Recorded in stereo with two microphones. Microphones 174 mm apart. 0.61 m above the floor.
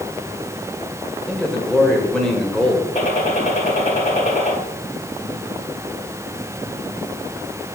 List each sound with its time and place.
1.3 s a man speaking: 5° left (ahead or behind), 2 m
3.0 s a gunshot: 45° left (ahead or behind), 3 m